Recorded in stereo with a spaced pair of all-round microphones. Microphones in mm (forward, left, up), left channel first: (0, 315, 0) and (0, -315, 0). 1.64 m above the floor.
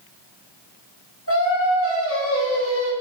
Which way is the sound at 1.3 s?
25° left (ahead or behind).